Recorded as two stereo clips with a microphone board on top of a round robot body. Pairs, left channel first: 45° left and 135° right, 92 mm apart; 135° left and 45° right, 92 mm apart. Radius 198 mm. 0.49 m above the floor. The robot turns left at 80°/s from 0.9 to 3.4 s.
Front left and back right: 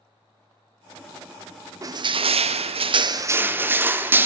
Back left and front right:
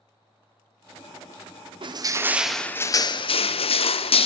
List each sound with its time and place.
1.8 s crushing: 80° right, 0.7 m; by 4.3 s 155° left, 0.7 m